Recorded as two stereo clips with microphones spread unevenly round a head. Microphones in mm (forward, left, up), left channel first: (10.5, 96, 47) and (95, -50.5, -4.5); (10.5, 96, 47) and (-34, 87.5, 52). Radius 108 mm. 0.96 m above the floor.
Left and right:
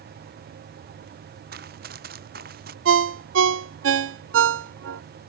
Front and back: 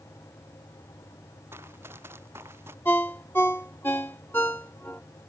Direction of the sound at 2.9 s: 65° right.